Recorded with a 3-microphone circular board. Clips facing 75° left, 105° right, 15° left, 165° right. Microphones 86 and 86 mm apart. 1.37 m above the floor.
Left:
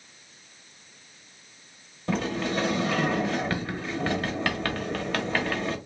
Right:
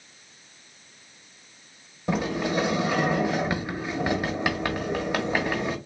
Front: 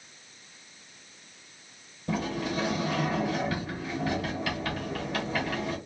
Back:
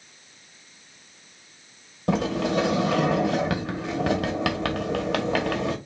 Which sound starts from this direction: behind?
A sliding door, at 2.1 s.